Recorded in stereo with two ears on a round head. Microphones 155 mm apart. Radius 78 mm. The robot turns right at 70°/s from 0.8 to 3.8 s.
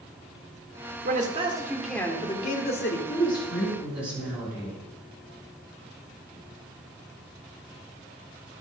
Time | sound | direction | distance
1.1 | a man speaking | 60° right | 1.9 m
3.1 | a woman speaking | 140° left | 6 m